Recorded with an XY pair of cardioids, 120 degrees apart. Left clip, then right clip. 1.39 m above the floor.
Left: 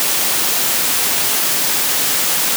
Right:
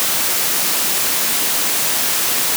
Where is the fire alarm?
I don't hear a fire alarm.